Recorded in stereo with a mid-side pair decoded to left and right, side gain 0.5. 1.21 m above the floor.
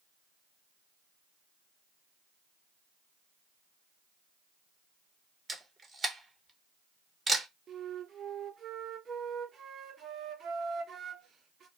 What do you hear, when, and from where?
5.5 s a camera shutter: 25° right, 0.9 m
7.7 s a flute: 50° right, 0.8 m